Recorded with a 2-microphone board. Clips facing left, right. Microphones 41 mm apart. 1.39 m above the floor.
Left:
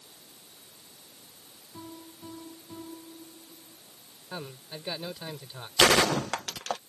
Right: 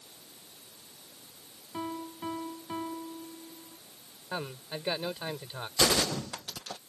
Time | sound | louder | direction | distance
1.7 | a piano | right 8 dB | 70° right (ahead or behind) | ?
4.3 | a man speaking | right 3 dB | 20° right (ahead or behind) | ?
5.8 | a gunshot | left 6 dB | 80° left | ?